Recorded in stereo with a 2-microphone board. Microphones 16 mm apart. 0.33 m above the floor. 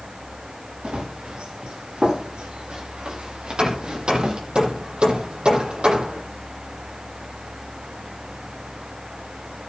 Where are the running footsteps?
80° right, 9.5 m; by 4.4 s 60° right (ahead or behind), 6.5 m.